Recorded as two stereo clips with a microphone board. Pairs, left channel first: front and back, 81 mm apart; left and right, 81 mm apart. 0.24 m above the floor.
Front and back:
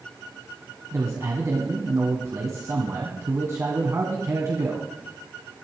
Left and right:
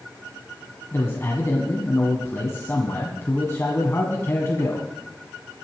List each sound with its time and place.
0.9 s a man speaking: 140° left, 2 m